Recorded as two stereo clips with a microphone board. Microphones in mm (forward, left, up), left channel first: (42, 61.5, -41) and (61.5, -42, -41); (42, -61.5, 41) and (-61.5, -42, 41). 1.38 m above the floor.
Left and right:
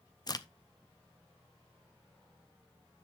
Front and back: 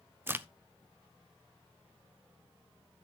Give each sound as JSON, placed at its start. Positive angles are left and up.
{"t": 0.3, "sound": "a crack", "azimuth_deg": 110, "distance_m": 0.5}